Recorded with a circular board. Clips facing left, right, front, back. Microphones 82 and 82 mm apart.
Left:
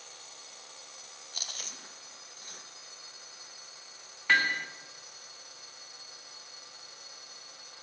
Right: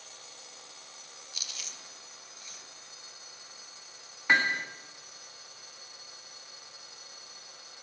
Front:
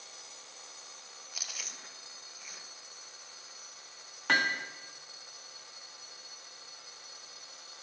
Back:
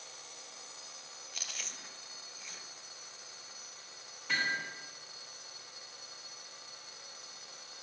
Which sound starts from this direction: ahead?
Hammering, at 4.3 s.